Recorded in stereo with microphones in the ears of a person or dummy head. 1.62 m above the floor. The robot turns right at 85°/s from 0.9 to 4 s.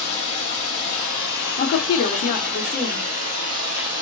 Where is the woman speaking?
60° left, 0.9 m; by 3.1 s 175° right, 0.9 m.